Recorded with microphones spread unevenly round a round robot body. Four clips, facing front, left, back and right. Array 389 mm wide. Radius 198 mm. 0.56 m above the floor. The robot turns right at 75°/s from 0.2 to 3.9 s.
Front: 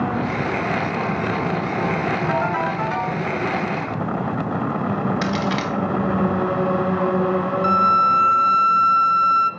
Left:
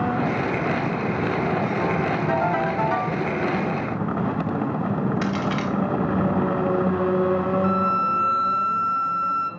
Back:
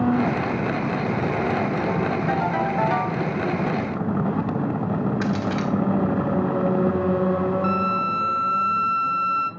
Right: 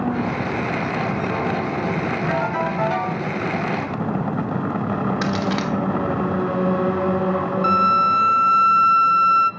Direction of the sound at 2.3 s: 170° left.